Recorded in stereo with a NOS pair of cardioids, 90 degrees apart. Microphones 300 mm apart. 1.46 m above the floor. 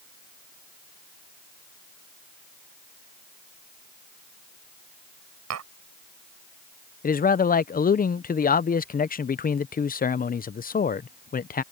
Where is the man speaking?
30° left.